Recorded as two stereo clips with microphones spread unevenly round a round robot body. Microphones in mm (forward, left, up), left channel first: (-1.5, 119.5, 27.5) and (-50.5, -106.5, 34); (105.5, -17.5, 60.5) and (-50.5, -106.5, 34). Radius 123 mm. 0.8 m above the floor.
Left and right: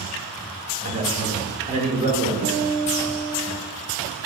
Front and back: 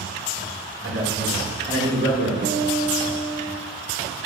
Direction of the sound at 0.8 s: 160° right.